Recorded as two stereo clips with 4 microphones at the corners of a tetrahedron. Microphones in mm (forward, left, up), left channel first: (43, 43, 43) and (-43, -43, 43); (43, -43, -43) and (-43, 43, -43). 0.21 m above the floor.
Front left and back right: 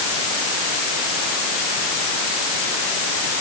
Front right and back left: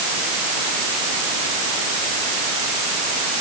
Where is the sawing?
No sawing in this recording.